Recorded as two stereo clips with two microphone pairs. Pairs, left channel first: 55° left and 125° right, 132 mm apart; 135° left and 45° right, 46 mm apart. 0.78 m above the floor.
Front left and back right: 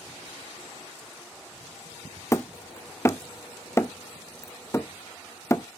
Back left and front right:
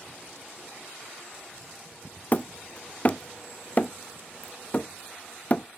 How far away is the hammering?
About 0.6 m.